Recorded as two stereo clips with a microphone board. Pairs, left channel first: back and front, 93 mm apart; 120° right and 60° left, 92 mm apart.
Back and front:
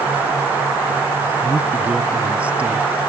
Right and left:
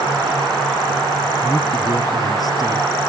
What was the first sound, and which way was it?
A man speaking, 75° right.